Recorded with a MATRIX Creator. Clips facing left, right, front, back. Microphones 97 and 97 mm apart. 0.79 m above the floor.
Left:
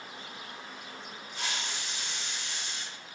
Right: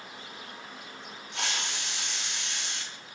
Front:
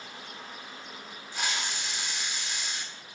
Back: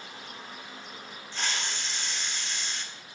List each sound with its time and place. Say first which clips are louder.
1.3 s a hiss: right 3 dB, front 1 dB; 80° right, 1.1 m